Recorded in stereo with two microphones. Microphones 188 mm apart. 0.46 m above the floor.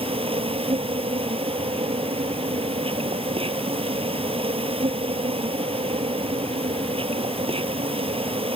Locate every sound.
0.0 s an insect: 30° right (ahead or behind)